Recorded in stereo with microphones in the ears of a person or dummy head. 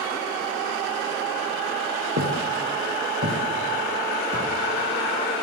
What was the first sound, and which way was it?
Footsteps, 50° right (ahead or behind).